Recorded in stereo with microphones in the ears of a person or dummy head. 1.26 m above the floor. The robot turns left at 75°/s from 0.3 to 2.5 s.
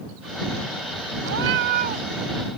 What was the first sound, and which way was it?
A cat meowing, 80° right.